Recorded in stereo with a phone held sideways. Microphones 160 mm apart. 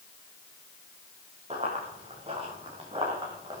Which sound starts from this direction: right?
Running footsteps, at 1.5 s.